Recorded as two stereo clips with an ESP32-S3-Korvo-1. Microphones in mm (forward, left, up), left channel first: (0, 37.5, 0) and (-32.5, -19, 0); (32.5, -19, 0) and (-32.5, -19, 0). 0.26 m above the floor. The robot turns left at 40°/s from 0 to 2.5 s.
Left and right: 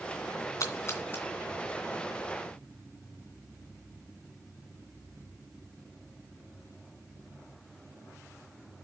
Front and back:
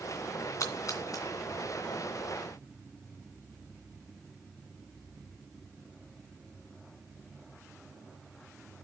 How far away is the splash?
About 2.5 m.